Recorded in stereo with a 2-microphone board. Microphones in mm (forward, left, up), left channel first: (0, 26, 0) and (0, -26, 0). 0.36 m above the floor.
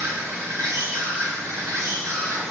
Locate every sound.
0.0 s an insect: 70° right (ahead or behind), 1.3 m